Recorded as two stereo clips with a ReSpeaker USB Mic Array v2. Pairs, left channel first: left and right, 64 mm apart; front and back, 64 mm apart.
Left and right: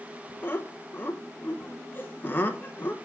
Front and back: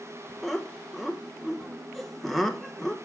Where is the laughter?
85° left, 0.8 m.